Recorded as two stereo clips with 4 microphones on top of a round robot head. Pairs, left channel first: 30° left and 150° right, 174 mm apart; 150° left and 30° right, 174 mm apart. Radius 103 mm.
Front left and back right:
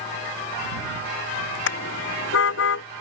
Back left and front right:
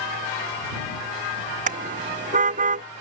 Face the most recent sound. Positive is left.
turn(degrees=15)